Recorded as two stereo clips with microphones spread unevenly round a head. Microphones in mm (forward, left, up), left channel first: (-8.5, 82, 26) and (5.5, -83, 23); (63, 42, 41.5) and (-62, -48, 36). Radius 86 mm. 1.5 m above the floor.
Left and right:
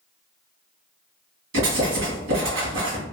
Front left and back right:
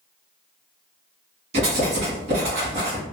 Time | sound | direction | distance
1.5 | writing | 95° right | 1.9 m